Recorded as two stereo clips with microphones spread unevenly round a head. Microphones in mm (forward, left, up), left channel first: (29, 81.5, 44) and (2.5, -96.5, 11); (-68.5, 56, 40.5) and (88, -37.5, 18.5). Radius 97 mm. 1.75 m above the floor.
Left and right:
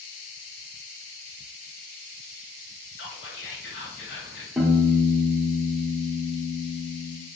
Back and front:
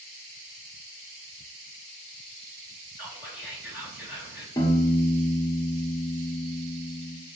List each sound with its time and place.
3.0 s whispering: 50° left, 1.2 m
4.6 s a piano: 155° left, 0.6 m